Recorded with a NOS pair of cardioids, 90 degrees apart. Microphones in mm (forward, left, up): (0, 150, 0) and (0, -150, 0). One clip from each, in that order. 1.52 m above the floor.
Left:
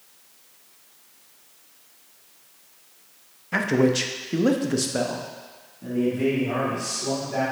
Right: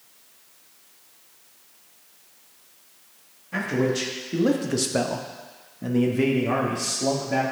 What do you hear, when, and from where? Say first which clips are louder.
3.5 s a man speaking: left 3 dB; 40° left, 1.1 m; by 7.4 s 75° right, 1.8 m